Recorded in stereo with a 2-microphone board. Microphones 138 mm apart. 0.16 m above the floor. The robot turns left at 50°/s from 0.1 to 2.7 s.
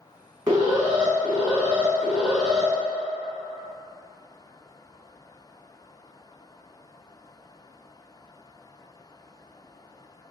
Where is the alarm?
25° right (ahead or behind), 1.5 m; by 2.7 s 5° left (ahead or behind), 1.5 m.